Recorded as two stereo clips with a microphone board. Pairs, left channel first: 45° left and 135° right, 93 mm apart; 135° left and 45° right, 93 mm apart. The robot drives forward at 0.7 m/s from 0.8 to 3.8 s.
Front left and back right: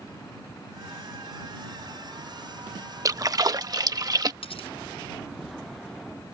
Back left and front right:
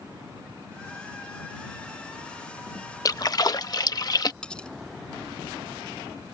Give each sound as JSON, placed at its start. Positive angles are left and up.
{"t": 3.0, "sound": "a splash", "azimuth_deg": 180}
{"t": 4.4, "sound": "cutlery clinking", "azimuth_deg": 55}